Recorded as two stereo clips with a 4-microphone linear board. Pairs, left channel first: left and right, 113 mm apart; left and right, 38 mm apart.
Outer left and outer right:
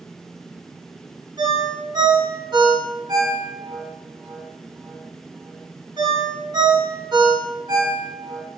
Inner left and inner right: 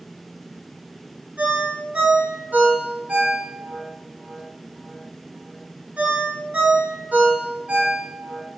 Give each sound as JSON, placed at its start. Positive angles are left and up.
{"t": 1.4, "sound": "a ringtone", "side_deg": -35, "distance_m": 0.7}